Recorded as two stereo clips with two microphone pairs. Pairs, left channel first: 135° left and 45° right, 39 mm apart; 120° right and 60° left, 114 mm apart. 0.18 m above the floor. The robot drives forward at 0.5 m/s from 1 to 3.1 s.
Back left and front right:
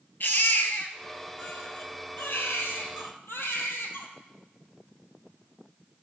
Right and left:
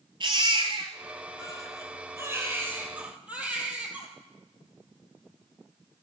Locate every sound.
0.2 s a baby crying: 105° left, 1.3 m; by 4.1 s 140° left, 1.8 m